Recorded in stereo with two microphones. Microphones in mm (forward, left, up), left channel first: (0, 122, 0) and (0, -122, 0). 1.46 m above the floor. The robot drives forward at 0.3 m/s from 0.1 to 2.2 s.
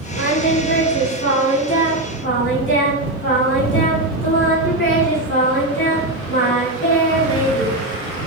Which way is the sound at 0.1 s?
55° left (ahead or behind).